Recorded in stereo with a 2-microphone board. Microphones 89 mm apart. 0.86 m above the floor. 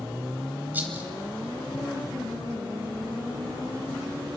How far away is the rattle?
About 1.6 m.